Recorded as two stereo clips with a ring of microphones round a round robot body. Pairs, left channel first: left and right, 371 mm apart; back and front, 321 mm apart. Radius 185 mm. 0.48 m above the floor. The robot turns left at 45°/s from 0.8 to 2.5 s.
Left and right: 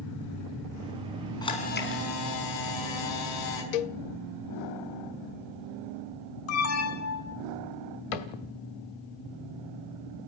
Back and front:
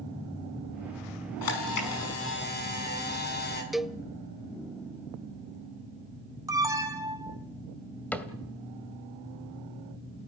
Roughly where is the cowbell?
Left.